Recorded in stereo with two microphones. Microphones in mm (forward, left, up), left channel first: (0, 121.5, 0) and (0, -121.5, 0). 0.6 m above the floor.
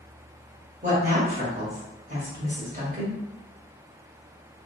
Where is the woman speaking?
30° right (ahead or behind), 1.3 m.